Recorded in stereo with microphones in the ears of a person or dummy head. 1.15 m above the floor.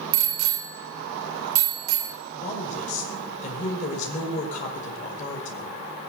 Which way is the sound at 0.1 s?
80° right.